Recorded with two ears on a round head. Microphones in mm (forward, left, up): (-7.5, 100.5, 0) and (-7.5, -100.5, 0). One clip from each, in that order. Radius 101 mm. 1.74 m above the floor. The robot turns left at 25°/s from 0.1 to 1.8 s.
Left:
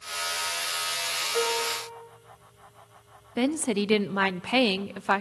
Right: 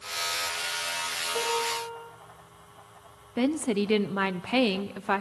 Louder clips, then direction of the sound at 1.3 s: Even; 65° left (ahead or behind).